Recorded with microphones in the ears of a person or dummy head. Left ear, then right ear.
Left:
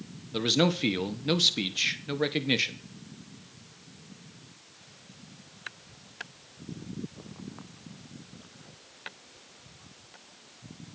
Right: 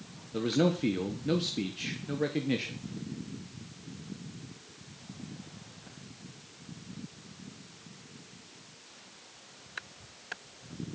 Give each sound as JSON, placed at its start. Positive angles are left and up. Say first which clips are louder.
{"t": 0.3, "sound": "a man speaking", "louder": "left 3 dB", "side_deg": 35, "distance_m": 1.5}